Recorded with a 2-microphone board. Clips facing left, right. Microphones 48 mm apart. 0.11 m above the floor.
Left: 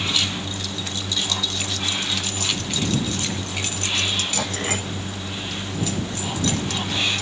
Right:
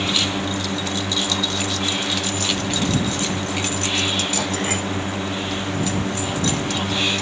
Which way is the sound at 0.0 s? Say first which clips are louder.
Right 3 dB; 50° right (ahead or behind).